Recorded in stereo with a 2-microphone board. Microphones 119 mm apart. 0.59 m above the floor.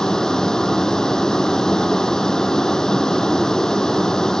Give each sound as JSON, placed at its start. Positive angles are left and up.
{"t": 0.0, "sound": "a vehicle", "side_deg": 5}